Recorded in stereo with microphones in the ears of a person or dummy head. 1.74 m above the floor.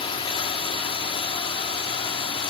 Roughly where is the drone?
Left.